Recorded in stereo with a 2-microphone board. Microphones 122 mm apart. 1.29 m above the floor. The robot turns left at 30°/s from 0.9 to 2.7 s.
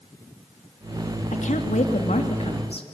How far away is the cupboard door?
I don't hear a cupboard door.